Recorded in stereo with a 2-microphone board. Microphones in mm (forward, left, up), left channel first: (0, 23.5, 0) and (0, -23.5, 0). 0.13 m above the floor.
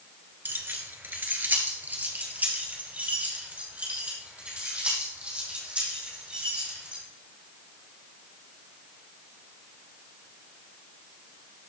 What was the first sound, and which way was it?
Keys jangling, 45° right (ahead or behind).